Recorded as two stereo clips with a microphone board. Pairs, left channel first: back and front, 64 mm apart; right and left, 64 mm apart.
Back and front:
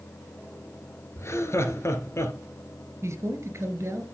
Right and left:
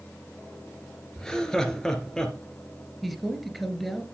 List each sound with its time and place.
1.2 s laughter: 170° right, 2.0 m
3.0 s a man speaking: 5° right, 2 m